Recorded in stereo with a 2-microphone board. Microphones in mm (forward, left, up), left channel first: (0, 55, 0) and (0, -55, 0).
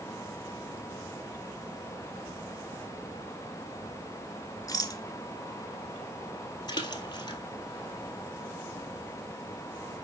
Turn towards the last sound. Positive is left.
turn(degrees=40)  # may be behind; listen again after turning